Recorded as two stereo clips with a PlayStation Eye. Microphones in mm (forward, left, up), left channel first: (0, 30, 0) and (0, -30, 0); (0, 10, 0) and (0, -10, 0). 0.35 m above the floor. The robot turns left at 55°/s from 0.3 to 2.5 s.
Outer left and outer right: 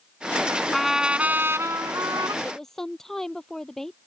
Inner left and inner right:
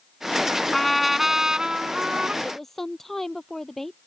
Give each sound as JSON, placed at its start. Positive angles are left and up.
{"t": 0.7, "sound": "a trumpet", "azimuth_deg": 5}
{"t": 2.4, "sound": "a woman speaking", "side_deg": 10}